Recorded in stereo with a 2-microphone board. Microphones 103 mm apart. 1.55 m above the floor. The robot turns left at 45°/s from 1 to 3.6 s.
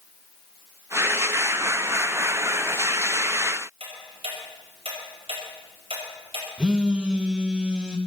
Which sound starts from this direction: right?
Ticking, at 3.8 s.